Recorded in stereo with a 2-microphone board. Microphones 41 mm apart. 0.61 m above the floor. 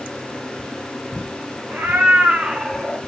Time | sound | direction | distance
1.7 | a cat meowing | 65° right (ahead or behind) | 1.1 m